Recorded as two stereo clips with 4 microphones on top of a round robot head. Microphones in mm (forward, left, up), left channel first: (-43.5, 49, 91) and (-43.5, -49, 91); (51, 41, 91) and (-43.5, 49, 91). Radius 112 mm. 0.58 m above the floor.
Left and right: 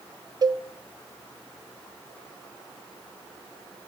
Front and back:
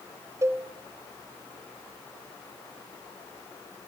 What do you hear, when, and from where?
0.4 s a cowbell: 130° right, 0.6 m